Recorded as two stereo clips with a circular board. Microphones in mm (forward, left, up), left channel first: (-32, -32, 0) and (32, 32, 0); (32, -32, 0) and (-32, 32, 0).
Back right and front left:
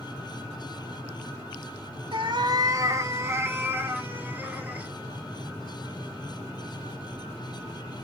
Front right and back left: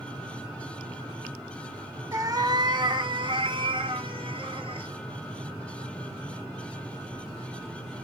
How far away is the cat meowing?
About 0.6 m.